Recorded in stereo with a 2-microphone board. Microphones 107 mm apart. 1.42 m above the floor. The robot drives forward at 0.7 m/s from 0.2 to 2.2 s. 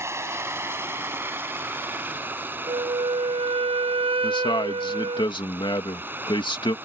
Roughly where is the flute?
Right.